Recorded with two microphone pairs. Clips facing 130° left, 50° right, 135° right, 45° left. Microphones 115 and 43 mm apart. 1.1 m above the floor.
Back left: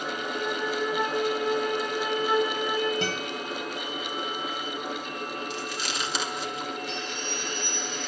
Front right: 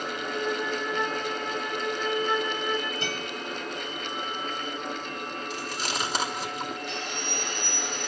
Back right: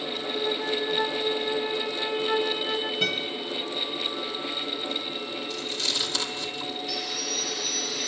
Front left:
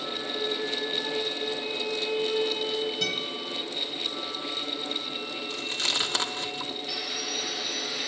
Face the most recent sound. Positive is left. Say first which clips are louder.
# even, back right 1 dB
turn(degrees=-25)